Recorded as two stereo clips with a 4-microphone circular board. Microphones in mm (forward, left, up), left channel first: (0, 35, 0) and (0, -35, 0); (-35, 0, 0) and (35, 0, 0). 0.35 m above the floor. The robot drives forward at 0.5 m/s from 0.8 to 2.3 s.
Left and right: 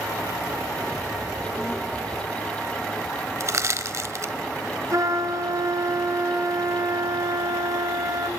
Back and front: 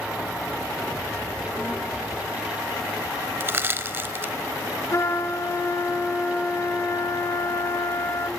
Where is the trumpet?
130° right, 1.6 m.